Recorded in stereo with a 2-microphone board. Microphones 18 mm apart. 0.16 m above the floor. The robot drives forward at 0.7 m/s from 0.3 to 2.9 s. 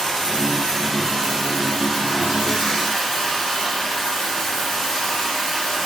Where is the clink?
No clink in this recording.